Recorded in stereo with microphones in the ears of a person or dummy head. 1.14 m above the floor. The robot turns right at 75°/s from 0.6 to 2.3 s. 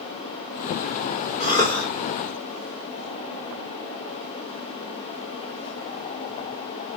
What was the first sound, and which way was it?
A cough, 145° left.